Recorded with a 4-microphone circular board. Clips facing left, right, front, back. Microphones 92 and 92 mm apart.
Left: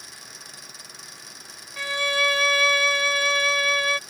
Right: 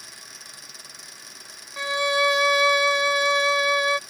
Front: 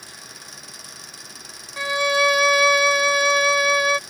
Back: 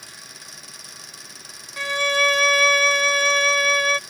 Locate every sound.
1.8 s a violin: 55° right